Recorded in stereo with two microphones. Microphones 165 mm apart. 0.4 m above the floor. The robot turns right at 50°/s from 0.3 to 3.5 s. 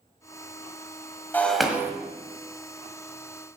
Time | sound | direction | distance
1.3 | breaking glass | 10° left (ahead or behind) | 1.3 m